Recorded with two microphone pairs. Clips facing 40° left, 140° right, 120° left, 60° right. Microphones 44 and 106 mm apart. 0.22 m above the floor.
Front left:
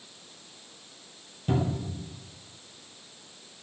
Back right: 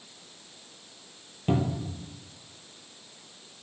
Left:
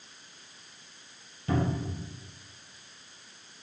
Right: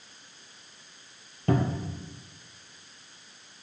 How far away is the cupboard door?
About 1.6 m.